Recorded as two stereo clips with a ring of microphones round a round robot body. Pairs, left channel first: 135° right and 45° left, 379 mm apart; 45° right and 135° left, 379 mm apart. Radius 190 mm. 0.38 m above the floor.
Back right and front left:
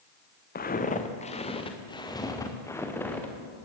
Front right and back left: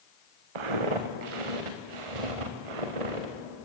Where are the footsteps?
155° left, 2.5 m; by 3.3 s 140° left, 4 m.